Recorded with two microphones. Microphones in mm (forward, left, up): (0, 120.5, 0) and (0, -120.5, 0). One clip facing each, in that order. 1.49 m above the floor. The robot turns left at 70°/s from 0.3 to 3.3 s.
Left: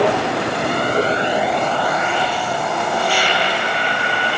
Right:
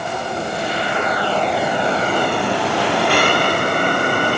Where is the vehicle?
90° left; by 4.4 s 50° right (ahead or behind).